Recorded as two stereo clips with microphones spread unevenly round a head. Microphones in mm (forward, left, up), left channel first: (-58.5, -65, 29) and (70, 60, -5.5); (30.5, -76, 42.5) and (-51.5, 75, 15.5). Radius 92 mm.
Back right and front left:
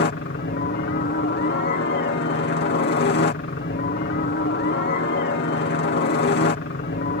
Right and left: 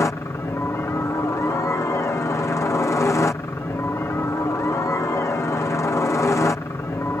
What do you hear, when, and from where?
0.0 s a helicopter: 140° right